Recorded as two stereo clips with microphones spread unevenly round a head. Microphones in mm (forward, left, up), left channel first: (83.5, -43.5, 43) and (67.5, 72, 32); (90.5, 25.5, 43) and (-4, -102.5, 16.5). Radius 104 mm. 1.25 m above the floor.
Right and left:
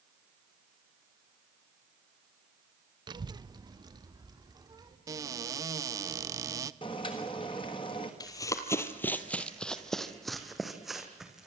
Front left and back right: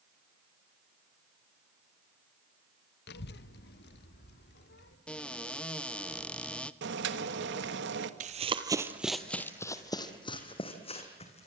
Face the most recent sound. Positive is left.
turn(degrees=10)